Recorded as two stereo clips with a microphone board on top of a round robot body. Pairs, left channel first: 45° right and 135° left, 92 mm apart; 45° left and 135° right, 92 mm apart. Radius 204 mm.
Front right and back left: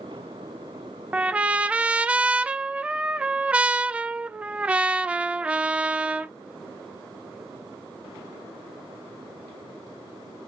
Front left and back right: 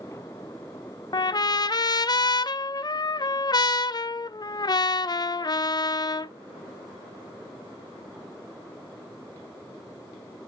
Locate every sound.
1.1 s a trumpet: 60° left, 0.6 m